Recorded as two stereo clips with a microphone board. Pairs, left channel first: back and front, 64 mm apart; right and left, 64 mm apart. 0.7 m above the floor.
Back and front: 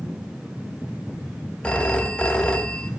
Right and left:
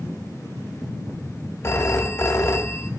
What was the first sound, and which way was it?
A phone ringing, 115° right.